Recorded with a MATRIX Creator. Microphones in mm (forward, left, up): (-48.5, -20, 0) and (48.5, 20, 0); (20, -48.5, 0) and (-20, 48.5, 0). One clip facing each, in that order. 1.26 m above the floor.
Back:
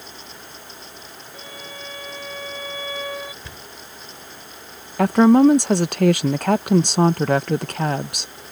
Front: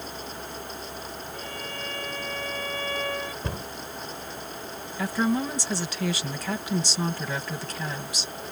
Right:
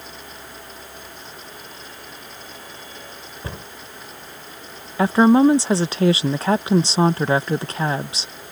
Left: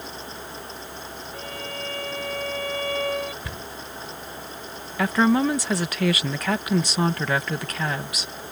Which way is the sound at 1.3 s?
120° left.